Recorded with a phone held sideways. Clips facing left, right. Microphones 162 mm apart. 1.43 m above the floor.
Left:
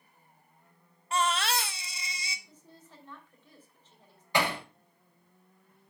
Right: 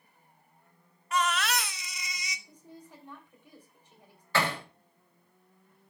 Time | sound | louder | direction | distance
1.1 | a baby crying | even | 30° left (ahead or behind) | 0.8 m
2.5 | a woman speaking | right 5 dB | 15° right (ahead or behind) | 3 m
4.3 | hammering | left 1 dB | 15° left (ahead or behind) | 4.5 m